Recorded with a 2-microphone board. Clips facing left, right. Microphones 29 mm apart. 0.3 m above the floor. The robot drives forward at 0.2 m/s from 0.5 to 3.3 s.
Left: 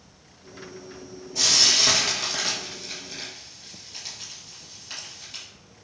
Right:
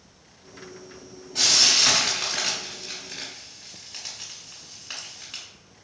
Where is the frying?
65° right (ahead or behind), 1.5 m; by 5.4 s 75° right (ahead or behind), 1.4 m.